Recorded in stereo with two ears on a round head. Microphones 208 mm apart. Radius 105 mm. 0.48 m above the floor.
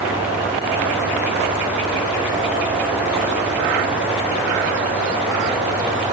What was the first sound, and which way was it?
Only background noise.